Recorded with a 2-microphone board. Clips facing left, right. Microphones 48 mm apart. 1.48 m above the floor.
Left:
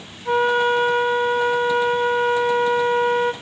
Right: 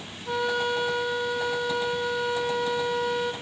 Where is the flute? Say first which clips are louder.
Left 9 dB; 40° left (ahead or behind), 0.8 m.